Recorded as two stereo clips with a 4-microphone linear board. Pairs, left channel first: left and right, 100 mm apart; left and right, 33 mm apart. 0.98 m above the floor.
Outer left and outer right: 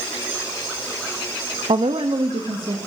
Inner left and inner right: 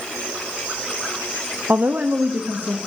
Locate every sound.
1.7 s a woman speaking: 75° right (ahead or behind), 0.7 m; by 2.8 s 55° right (ahead or behind), 1.8 m